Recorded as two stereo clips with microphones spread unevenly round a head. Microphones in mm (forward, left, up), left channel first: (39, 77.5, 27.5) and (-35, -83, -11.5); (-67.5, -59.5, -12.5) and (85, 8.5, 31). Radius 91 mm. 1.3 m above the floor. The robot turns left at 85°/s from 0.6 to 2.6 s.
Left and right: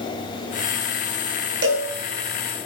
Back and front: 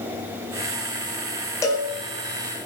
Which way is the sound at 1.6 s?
80° right.